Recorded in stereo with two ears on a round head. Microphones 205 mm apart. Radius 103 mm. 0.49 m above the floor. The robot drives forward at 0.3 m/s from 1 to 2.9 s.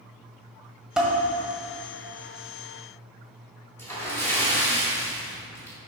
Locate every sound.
1.0 s dishes clattering: 5° right (ahead or behind), 1.5 m
3.8 s a splash: 10° left (ahead or behind), 2 m